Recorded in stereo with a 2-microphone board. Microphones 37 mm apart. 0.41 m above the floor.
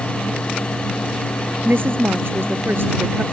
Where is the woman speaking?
80° right.